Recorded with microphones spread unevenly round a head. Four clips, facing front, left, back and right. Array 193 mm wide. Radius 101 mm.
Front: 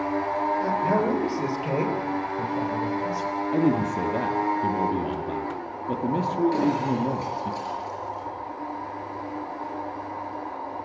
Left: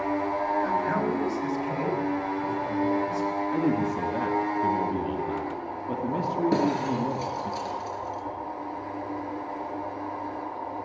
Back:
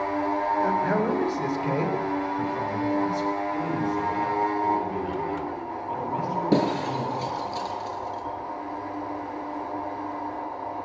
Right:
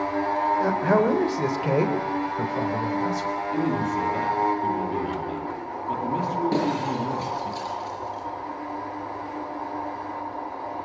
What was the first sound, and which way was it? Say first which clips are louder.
A man speaking: right 5 dB, front 1 dB; 85° right.